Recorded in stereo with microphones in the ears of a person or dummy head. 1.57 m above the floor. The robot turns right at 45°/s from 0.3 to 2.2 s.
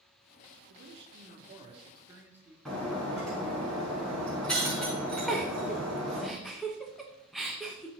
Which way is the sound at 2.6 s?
10° left (ahead or behind).